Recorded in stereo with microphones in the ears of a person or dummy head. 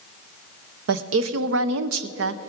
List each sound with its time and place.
0.9 s a woman speaking: 75° right (ahead or behind), 0.7 m